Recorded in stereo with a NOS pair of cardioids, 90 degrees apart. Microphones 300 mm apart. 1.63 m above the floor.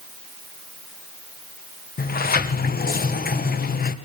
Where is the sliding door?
30° left, 1.6 m.